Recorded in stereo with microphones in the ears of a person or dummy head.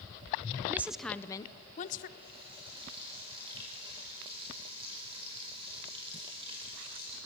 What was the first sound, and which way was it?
A woman speaking, 15° right (ahead or behind).